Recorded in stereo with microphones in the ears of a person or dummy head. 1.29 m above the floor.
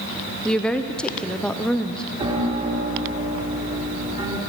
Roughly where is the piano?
Right.